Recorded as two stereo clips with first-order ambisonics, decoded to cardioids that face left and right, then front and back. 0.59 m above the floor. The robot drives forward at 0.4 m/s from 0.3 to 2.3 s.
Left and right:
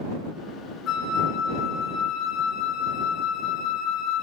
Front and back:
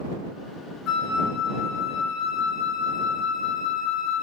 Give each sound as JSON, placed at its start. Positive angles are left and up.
{"t": 0.9, "sound": "a flute", "azimuth_deg": 40, "distance_m": 4.0}